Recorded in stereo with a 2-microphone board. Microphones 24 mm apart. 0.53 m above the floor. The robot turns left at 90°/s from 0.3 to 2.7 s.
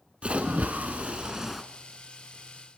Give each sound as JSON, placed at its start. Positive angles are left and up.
{"t": 0.2, "sound": "a splash", "azimuth_deg": -55, "distance_m": 1.5}